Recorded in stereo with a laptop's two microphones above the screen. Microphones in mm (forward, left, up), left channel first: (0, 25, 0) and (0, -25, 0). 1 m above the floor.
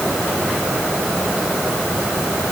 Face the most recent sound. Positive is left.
No sound to turn to.